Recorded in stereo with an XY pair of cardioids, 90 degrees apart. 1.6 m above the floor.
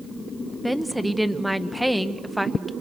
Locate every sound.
0.6 s a woman speaking: straight ahead, 1.6 m